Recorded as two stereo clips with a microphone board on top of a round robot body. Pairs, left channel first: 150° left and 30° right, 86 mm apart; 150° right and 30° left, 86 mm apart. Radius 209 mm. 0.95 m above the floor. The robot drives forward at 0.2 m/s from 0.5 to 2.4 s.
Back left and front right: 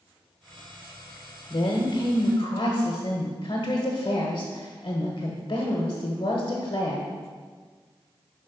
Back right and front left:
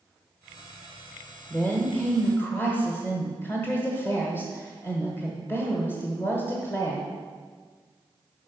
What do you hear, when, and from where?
1.5 s a woman speaking: 140° left, 1.2 m; by 7.1 s 150° left, 1.3 m